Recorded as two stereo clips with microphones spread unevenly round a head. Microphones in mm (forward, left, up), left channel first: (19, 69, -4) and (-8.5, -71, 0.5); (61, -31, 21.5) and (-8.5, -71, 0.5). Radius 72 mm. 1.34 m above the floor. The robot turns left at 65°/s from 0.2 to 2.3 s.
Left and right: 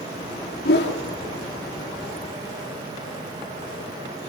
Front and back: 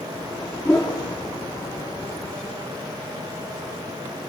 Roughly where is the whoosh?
Left.